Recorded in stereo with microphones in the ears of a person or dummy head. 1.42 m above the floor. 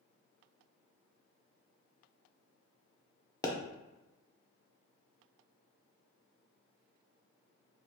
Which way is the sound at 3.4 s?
20° left (ahead or behind).